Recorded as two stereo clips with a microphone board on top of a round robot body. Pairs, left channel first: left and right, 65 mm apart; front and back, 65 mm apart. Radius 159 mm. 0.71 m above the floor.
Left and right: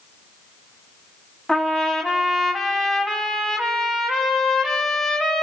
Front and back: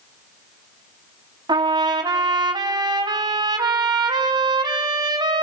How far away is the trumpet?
About 0.9 m.